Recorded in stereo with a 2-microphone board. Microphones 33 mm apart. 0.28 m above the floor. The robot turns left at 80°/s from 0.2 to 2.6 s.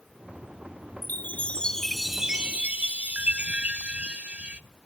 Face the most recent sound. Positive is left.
turn(degrees=-50)